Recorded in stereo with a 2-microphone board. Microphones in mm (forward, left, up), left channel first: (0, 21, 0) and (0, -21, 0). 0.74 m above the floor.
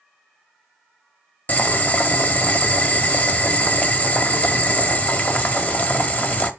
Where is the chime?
I don't hear a chime.